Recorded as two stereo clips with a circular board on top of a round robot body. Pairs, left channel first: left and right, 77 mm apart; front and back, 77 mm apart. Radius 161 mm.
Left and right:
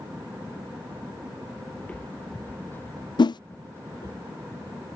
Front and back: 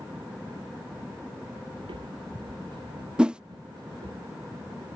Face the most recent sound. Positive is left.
turn(degrees=100)